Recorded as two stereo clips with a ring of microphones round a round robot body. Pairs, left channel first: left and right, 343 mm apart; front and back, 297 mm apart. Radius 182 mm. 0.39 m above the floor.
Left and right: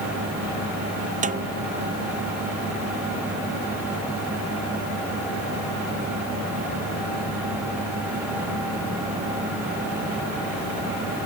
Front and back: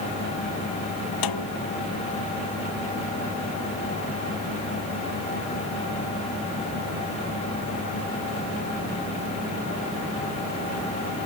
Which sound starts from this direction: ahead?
A snare drum, at 1.2 s.